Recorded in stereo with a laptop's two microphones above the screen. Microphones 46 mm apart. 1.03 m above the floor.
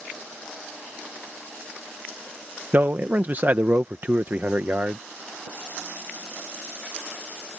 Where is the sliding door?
I don't hear a sliding door.